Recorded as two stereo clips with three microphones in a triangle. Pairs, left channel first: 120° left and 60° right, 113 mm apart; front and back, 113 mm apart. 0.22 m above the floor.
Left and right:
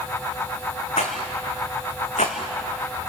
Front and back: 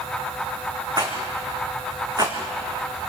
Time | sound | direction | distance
1.0 | a rattle | 125° left | 3.5 m